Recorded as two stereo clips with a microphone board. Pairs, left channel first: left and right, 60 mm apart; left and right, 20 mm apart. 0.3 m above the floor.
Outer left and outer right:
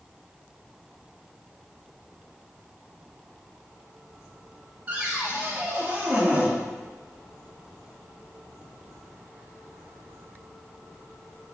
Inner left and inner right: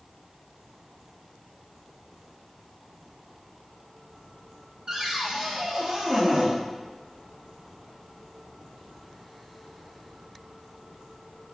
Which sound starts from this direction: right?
A cupboard door, at 4.9 s.